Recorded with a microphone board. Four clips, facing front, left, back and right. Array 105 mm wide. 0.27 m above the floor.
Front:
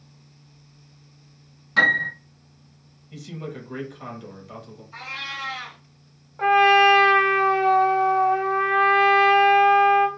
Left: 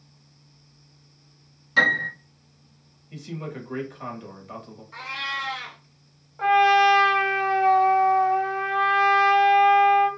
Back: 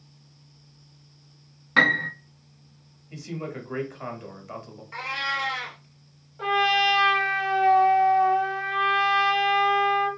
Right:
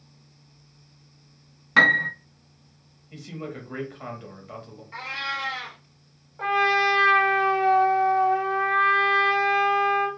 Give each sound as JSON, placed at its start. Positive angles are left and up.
{"t": 1.8, "sound": "a piano", "azimuth_deg": -125, "distance_m": 0.5}
{"t": 3.1, "sound": "a man speaking", "azimuth_deg": -170, "distance_m": 1.3}
{"t": 4.9, "sound": "a cat meowing", "azimuth_deg": -150, "distance_m": 0.9}
{"t": 6.4, "sound": "a trumpet", "azimuth_deg": 10, "distance_m": 0.8}